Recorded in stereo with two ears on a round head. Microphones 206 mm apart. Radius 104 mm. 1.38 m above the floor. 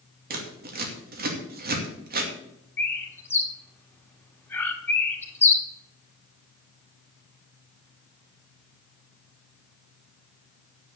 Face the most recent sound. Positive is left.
turn(degrees=10)  # may be behind; listen again after turning